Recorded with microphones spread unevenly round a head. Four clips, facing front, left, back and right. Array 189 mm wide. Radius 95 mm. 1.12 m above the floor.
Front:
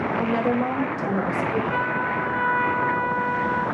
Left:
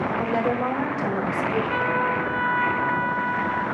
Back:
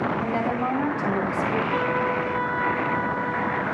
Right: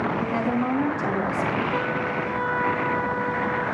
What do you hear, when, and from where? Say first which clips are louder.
0.2 s a woman speaking: left 1 dB, front 3 dB; 35° left, 5.5 m; by 1.6 s 30° left, 6.5 m
1.7 s a trumpet: left 2 dB, back 1 dB; 70° left, 4 m